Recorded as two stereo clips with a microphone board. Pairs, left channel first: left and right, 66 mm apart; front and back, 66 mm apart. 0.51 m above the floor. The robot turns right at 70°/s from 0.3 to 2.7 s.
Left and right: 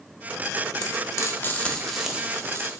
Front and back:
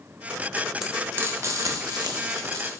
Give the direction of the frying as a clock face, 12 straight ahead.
9 o'clock.